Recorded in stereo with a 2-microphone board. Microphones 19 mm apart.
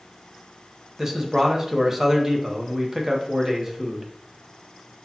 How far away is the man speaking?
About 1.0 m.